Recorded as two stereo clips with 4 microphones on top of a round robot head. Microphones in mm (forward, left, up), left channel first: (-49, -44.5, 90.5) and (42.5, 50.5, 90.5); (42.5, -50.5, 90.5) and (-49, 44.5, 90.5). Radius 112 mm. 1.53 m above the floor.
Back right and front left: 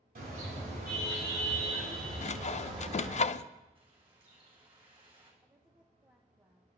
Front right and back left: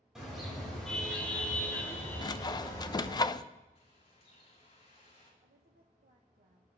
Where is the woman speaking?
120° left, 1.1 m.